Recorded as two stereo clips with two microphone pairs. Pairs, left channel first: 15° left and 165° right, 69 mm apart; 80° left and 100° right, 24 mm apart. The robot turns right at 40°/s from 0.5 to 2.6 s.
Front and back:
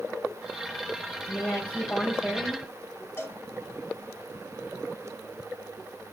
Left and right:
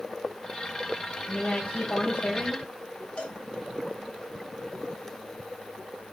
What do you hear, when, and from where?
1.3 s a woman speaking: 70° left, 4 m; by 2.6 s 120° left, 4 m
3.2 s a cowbell: 65° left, 1.7 m